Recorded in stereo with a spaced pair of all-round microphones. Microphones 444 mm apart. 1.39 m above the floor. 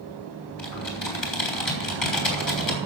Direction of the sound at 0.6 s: 80° left.